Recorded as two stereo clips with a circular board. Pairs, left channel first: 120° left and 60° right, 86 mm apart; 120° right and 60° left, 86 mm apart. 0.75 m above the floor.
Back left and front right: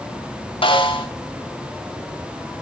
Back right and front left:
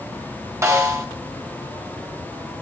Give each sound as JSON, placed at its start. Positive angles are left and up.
{"t": 0.6, "sound": "a snare drum", "azimuth_deg": 115, "distance_m": 4.0}